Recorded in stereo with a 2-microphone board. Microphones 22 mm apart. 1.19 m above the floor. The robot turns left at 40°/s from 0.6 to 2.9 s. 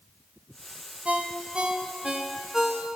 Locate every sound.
1.1 s a ringtone: 105° right, 0.7 m; by 2.9 s 175° right, 0.7 m